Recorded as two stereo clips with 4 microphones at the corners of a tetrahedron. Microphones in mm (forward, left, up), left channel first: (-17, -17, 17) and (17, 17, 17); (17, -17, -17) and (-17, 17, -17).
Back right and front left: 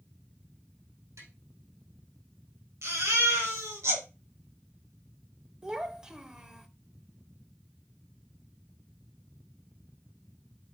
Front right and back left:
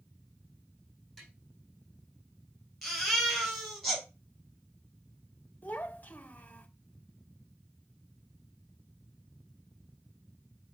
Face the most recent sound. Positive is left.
turn(degrees=-20)